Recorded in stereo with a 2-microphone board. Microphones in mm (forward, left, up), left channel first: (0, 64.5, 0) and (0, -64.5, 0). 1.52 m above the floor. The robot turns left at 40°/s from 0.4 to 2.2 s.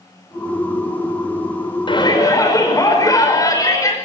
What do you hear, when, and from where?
1.9 s a shout: 40° left (ahead or behind), 5 m; by 4.0 s 25° left (ahead or behind), 5 m